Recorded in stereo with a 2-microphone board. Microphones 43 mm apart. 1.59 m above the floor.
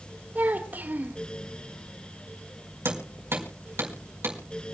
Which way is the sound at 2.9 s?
65° right (ahead or behind).